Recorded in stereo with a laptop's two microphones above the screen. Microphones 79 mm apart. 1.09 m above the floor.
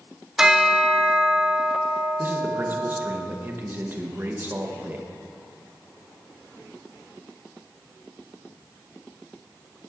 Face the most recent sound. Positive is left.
turn(degrees=-25)  # may be behind; listen again after turning